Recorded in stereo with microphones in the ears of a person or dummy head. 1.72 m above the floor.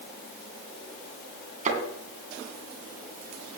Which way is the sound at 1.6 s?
45° right (ahead or behind).